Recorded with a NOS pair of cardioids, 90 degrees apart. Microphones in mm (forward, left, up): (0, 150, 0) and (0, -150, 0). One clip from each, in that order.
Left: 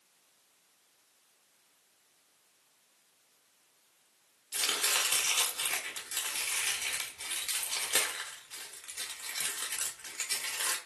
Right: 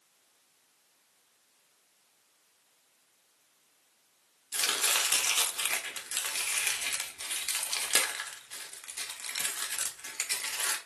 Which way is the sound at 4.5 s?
20° right.